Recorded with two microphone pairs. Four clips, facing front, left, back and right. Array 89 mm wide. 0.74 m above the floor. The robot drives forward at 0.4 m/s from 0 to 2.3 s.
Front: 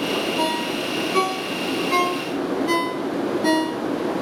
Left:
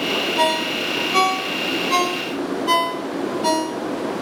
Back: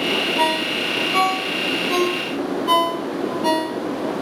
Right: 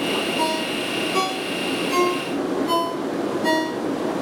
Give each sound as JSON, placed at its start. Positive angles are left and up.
{"t": 0.4, "sound": "a ringtone", "azimuth_deg": 115, "distance_m": 2.5}